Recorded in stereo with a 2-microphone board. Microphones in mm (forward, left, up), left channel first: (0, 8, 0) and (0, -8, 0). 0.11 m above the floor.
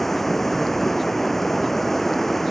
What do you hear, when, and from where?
0.0 s running water: 15° left (ahead or behind)